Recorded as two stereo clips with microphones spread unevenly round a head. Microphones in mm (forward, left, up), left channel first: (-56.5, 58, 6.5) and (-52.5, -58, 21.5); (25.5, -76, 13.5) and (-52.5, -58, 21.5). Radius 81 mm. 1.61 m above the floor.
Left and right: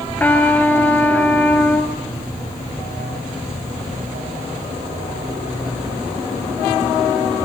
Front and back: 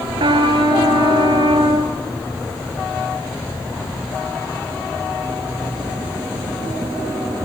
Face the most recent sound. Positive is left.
turn(degrees=170)